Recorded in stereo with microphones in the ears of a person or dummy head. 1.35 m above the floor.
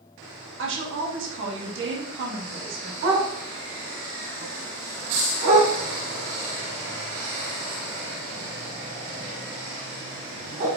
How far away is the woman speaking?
About 0.8 m.